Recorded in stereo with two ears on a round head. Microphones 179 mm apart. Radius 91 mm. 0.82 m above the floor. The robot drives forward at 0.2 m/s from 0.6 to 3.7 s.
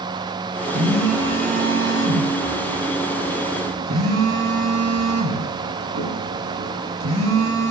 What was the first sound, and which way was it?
A phone buzzing, 85° right.